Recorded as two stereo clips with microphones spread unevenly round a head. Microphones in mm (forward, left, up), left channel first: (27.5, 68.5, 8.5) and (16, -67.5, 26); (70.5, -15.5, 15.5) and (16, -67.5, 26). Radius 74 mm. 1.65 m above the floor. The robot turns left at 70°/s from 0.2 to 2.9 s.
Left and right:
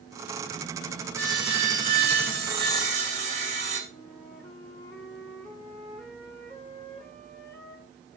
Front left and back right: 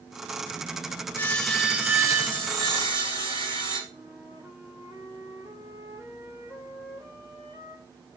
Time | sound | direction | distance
1.1 | sawing | 20° right | 3 m
3.9 | a flute | 160° left | 2.5 m